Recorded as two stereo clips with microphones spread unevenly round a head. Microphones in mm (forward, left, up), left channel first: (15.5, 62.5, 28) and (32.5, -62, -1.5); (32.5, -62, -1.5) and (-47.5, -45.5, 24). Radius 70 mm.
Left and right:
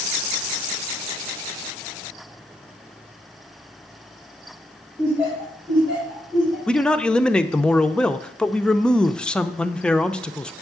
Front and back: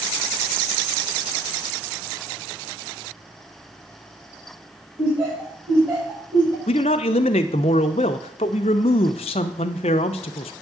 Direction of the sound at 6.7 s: 25° left.